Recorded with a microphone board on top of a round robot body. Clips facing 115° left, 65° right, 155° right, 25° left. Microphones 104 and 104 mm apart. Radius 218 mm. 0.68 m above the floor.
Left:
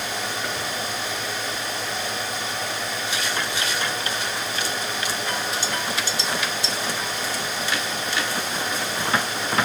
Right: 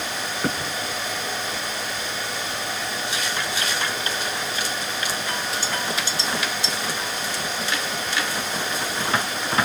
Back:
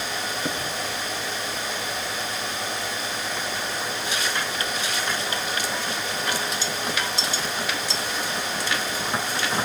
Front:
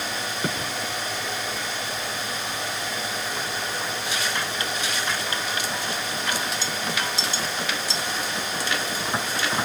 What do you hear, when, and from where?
0.4 s a thud: 15° right, 7 m